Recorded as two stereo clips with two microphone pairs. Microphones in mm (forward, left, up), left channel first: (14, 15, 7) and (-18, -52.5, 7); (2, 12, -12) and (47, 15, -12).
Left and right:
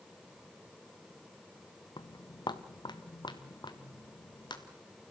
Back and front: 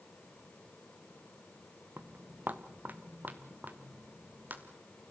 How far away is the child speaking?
No child speaking in this recording.